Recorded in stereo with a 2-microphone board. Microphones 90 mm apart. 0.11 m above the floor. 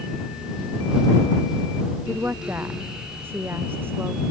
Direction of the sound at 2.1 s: 25° right (ahead or behind).